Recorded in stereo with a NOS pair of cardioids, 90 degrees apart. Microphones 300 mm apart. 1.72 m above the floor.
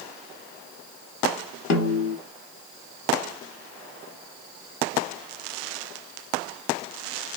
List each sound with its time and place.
1.7 s a snare drum: 60° left, 0.8 m